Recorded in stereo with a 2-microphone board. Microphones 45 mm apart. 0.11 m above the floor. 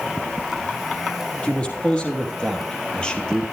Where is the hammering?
I don't hear hammering.